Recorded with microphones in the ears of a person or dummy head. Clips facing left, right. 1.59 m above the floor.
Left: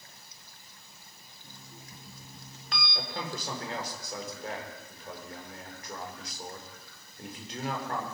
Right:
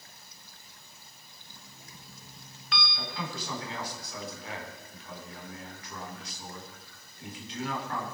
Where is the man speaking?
35° left (ahead or behind), 5 m.